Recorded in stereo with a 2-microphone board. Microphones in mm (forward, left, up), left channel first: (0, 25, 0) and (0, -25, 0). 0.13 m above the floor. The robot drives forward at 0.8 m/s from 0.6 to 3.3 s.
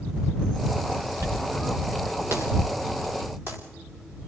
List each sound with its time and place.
1.2 s a dropped coin: 70° right (ahead or behind), 3.5 m; by 3.6 s 45° right (ahead or behind), 4 m